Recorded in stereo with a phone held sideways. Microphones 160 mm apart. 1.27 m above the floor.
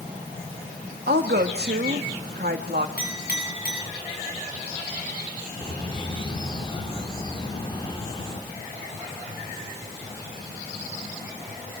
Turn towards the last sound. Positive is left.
turn(degrees=30)  # may be behind; listen again after turning